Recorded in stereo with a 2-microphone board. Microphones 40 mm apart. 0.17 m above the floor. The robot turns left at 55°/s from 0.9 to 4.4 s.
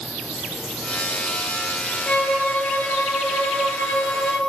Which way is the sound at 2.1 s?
150° left.